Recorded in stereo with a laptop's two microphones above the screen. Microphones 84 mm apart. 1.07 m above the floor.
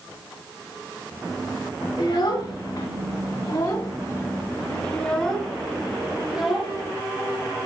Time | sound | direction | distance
2.0 | a child speaking | 85° left | 2.0 m